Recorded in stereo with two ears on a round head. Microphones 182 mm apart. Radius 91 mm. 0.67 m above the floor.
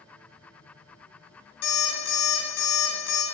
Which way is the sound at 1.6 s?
70° left (ahead or behind).